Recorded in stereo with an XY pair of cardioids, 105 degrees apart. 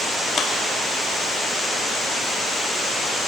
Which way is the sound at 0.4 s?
50° left.